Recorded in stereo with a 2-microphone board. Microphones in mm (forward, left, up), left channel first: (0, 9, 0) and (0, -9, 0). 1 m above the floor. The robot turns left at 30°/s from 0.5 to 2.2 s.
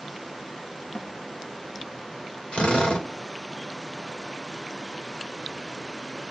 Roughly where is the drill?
Left.